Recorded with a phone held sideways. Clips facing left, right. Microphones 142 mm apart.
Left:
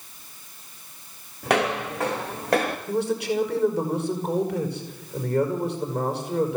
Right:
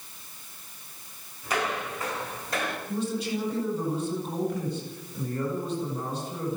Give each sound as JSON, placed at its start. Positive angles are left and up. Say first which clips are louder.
{"t": 1.4, "sound": "footsteps", "louder": "left 7 dB", "side_deg": 70, "distance_m": 3.0}
{"t": 2.9, "sound": "a man speaking", "louder": "left 6 dB", "side_deg": 70, "distance_m": 6.0}